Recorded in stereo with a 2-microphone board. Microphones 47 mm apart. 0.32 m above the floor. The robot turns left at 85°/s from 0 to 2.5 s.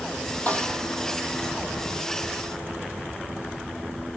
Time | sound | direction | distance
0.5 | a snare drum | 30° left | 4.5 m